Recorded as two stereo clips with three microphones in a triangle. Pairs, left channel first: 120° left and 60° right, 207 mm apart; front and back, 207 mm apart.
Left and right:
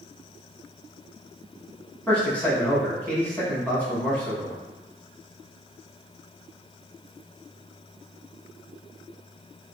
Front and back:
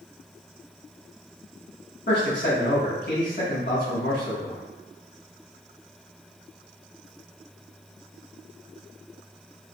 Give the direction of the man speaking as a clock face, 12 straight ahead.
11 o'clock.